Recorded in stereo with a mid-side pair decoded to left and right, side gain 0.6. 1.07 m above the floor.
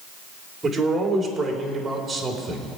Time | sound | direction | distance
0.6 | a man speaking | 20° right | 4 m